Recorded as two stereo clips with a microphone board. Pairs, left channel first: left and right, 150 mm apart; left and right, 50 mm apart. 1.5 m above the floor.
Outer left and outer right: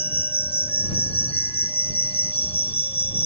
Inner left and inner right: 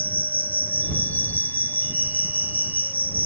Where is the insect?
40° left (ahead or behind).